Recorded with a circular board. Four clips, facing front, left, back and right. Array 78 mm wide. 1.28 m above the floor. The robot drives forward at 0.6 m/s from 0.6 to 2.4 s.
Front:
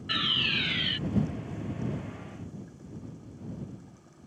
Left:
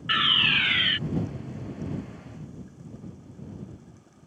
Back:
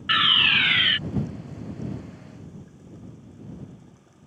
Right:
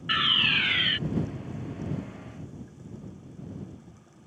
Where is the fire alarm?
170° left; by 1.0 s 175° left.